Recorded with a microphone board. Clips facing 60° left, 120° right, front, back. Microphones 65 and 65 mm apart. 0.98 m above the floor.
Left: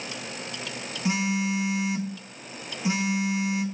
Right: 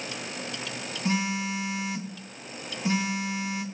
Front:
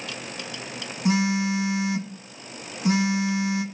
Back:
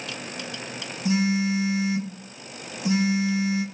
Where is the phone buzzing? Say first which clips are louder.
Left 2 dB, even; 20° right, 0.9 m.